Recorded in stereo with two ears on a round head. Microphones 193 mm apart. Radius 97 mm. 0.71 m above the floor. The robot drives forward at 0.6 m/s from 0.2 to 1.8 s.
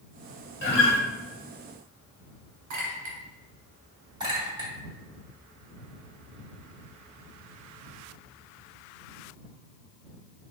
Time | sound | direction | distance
0.6 | a guitar | 55° left (ahead or behind) | 1.2 m
2.7 | a clink | 65° right (ahead or behind) | 1.8 m
4.2 | a clink | 20° right (ahead or behind) | 1.5 m